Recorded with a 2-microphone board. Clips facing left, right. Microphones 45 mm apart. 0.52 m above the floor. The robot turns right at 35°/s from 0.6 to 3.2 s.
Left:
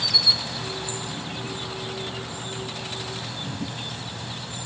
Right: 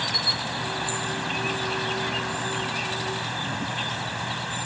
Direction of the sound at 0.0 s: 140° right.